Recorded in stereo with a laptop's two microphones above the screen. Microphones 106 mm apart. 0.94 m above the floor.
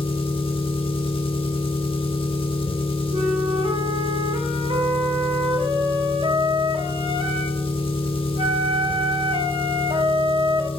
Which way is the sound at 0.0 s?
55° left (ahead or behind).